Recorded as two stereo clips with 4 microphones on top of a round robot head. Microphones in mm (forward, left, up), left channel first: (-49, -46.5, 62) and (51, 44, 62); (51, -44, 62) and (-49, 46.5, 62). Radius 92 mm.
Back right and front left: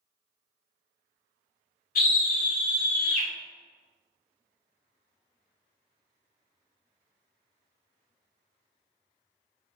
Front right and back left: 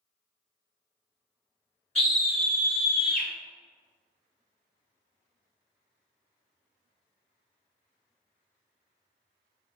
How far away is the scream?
About 0.9 m.